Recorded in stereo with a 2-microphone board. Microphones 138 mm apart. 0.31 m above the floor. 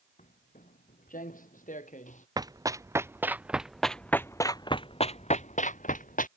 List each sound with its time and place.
0.2 s footsteps: 70° left (ahead or behind); by 2.3 s 65° left (ahead or behind)
2.4 s running footsteps: 30° right (ahead or behind); by 6.3 s 80° left